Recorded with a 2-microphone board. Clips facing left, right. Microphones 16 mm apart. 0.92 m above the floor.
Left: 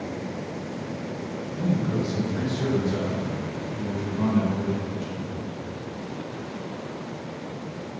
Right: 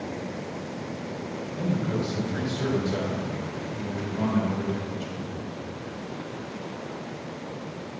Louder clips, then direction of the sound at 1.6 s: Left 2 dB; 75° right (ahead or behind).